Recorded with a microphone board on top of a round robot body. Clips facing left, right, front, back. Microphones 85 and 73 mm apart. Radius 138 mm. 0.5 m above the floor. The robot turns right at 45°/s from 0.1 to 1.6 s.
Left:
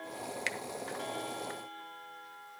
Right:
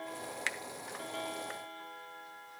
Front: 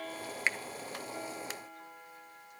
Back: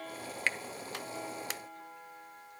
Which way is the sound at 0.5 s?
65° right.